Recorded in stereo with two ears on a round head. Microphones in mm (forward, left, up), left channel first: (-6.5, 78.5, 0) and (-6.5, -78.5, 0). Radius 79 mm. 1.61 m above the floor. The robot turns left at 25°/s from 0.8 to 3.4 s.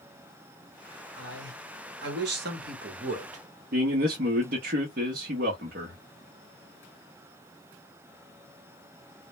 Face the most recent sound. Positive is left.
turn(degrees=-50)  # may be behind; listen again after turning